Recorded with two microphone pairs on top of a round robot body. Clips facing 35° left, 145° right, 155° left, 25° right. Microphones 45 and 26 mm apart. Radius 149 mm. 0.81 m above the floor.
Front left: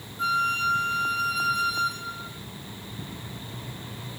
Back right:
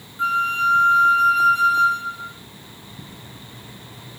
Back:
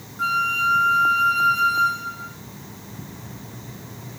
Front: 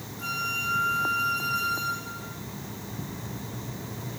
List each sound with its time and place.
0.2 s a flute: 155° left, 2.5 m